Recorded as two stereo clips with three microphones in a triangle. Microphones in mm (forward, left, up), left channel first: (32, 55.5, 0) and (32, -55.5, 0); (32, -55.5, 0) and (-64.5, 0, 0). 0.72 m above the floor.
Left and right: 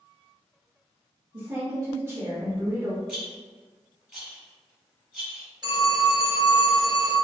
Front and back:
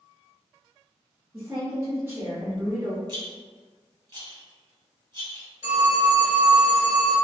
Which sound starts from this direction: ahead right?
A phone ringing, at 5.6 s.